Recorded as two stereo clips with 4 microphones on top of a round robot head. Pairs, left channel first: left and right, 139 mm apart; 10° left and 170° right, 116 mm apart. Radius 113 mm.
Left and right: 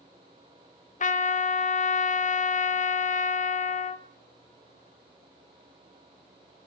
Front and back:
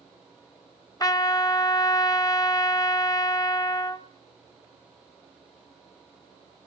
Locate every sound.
1.0 s a trumpet: 65° left, 1.0 m